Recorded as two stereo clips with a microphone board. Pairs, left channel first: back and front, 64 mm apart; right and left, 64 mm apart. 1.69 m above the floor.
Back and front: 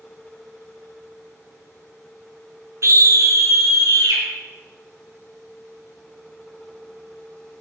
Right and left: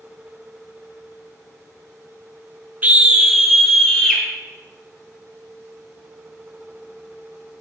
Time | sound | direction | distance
2.8 | a scream | 30° left | 0.6 m